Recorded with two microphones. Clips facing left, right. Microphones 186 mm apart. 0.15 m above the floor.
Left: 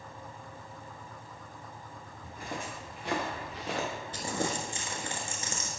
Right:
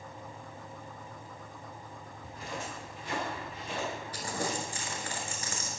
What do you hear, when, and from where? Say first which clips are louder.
2.2 s footsteps: left 1 dB; 50° left (ahead or behind), 2.5 m; by 3.9 s 75° left (ahead or behind), 1.7 m
4.1 s crumpling: left 3 dB; 25° left (ahead or behind), 1.1 m